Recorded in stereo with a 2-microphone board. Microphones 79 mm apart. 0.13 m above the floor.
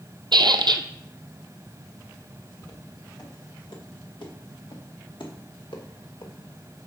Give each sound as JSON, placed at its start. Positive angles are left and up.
{"t": 0.3, "sound": "a squeak", "side_deg": -70, "distance_m": 0.6}
{"t": 2.6, "sound": "footsteps", "side_deg": 50, "distance_m": 3.5}